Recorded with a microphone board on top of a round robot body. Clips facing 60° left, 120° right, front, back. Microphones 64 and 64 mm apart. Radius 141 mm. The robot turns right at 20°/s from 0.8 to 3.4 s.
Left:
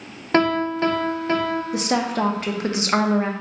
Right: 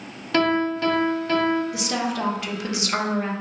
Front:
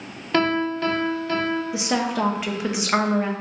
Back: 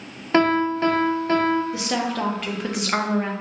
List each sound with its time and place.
0.3 s a piano: 115° left, 0.9 m; by 1.6 s 130° left, 0.9 m
1.7 s a woman speaking: 65° left, 0.8 m; by 3.3 s 95° left, 0.8 m